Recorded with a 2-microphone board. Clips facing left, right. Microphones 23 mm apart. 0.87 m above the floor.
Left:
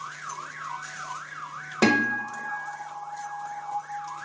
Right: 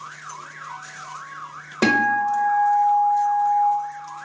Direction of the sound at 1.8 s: 5° right (ahead or behind).